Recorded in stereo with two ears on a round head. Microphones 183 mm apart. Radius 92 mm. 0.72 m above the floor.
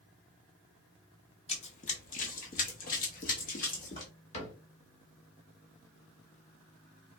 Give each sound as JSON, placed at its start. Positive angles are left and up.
{"t": 1.5, "sound": "running footsteps", "side_deg": 30, "distance_m": 0.8}
{"t": 4.3, "sound": "a cupboard door", "side_deg": 30, "distance_m": 1.2}